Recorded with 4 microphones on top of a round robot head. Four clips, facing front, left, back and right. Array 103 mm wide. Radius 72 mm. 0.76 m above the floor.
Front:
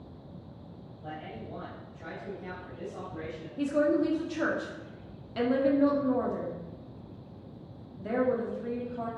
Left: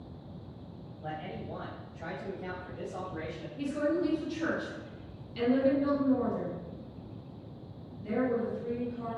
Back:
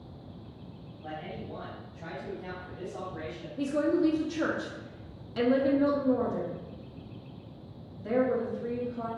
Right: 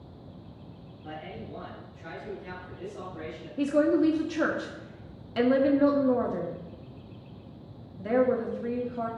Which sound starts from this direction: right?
A woman speaking, at 3.6 s.